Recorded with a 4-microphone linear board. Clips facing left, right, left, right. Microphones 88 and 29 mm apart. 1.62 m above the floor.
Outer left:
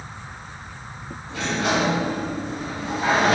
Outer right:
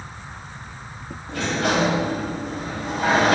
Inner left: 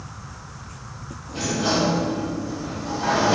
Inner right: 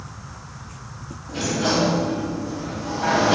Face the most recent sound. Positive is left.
turn(degrees=-65)  # may be behind; listen again after turning